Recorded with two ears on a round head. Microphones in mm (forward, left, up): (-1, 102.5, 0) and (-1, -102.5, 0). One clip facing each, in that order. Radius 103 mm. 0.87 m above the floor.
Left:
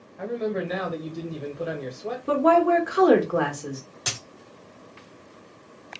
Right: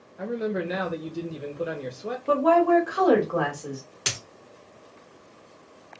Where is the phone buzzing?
No phone buzzing in this recording.